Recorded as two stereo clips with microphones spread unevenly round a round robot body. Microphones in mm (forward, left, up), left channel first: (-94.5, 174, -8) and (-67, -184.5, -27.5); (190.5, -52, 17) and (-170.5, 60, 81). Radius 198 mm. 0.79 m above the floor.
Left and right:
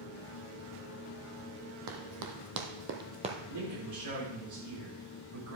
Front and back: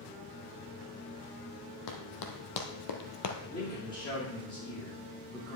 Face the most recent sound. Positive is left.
turn(degrees=-90)